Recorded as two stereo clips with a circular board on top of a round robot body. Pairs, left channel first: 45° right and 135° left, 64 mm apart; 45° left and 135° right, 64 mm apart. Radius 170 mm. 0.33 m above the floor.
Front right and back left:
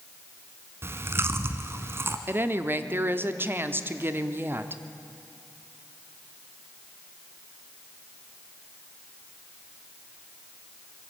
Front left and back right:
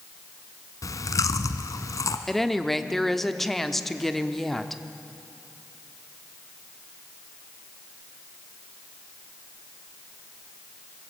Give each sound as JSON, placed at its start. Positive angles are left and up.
{"t": 0.8, "sound": "chewing", "azimuth_deg": 80, "distance_m": 1.0}
{"t": 2.3, "sound": "a woman speaking", "azimuth_deg": 130, "distance_m": 1.4}